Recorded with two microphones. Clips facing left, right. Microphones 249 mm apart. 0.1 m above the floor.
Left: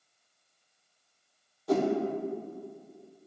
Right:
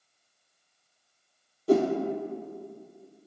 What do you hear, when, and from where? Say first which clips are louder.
1.7 s a whoosh: right 4 dB; 35° right (ahead or behind), 0.6 m